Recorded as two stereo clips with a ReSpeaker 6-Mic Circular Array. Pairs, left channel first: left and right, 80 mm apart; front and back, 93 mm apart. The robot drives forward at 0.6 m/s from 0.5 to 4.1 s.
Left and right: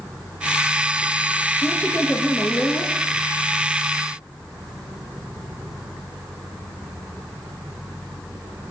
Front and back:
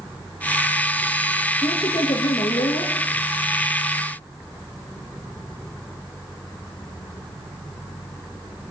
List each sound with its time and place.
1.6 s a woman speaking: 25° left, 5 m; by 2.9 s 30° left, 4.5 m